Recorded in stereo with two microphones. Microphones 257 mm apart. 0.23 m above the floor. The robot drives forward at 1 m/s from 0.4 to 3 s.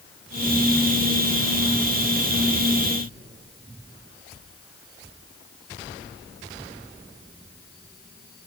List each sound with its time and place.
Only background noise.